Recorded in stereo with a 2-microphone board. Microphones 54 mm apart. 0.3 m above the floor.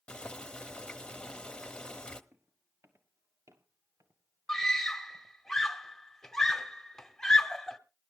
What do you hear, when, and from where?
0.1 s boiling: 20° left (ahead or behind), 1.1 m
2.3 s footsteps: 50° right (ahead or behind), 3 m; by 5.4 s 85° right, 3.5 m
4.5 s a scream: 10° left (ahead or behind), 1.1 m